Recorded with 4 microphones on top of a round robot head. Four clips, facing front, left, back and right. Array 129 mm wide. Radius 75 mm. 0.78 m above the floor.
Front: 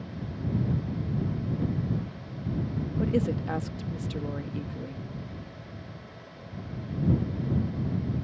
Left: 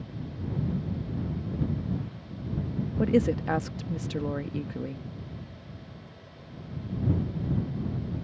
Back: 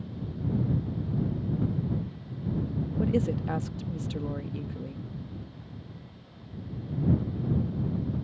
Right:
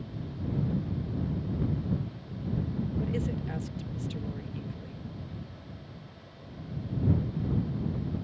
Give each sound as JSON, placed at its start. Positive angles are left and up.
{"t": 3.0, "sound": "a woman speaking", "azimuth_deg": 95}